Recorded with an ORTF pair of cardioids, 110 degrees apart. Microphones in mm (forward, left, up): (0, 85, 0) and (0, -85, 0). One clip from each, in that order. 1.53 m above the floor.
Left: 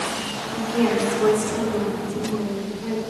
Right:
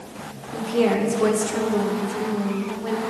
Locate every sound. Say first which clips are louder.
0.5 s a woman speaking: right 2 dB; 30° right, 1.0 m